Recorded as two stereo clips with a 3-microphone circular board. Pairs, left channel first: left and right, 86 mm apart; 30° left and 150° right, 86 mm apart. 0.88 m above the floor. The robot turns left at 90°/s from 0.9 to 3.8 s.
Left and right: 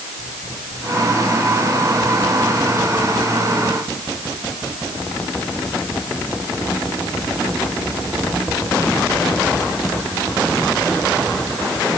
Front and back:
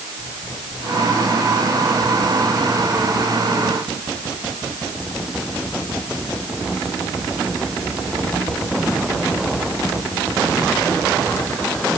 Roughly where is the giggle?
I don't hear a giggle.